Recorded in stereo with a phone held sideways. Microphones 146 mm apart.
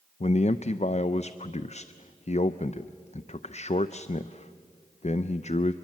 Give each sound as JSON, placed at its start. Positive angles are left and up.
{"t": 0.2, "sound": "a man speaking", "side_deg": 50, "distance_m": 0.5}